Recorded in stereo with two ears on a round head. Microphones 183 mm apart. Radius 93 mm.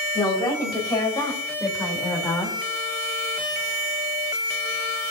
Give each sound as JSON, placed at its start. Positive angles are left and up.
{"t": 0.1, "sound": "a woman speaking", "side_deg": 25, "distance_m": 4.5}